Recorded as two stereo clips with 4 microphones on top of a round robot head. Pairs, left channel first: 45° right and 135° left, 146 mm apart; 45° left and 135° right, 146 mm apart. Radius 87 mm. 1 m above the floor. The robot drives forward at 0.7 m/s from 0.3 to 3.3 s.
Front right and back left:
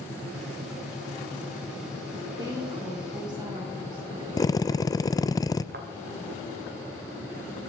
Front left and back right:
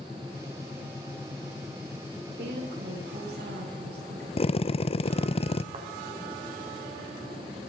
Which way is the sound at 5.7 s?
165° left.